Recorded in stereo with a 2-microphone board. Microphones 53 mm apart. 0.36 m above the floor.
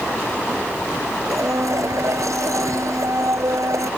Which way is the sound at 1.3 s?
85° right.